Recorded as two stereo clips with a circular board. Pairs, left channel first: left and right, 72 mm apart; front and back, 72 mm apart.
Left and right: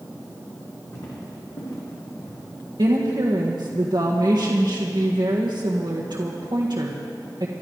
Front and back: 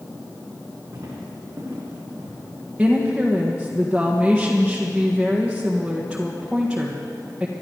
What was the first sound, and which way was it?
Footsteps, 135° left.